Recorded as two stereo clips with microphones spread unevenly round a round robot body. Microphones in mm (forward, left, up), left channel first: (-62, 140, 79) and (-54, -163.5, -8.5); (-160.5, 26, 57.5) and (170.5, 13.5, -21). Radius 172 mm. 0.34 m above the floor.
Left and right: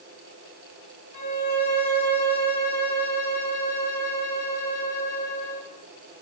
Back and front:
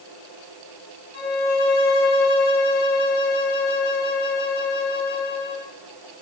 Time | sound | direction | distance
1.1 | a violin | 115° left | 5 m